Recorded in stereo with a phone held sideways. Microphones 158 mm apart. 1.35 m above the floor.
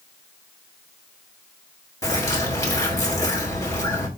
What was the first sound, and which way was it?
A bird, 20° left (ahead or behind).